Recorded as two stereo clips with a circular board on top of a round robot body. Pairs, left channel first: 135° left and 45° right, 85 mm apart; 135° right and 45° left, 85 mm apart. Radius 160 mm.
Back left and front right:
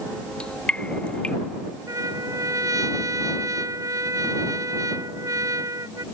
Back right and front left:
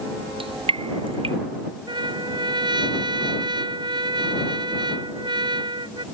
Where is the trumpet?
10° left.